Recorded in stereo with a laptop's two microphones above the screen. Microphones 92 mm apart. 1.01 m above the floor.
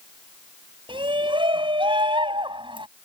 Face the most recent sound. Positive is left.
turn(degrees=-65)  # may be behind; listen again after turning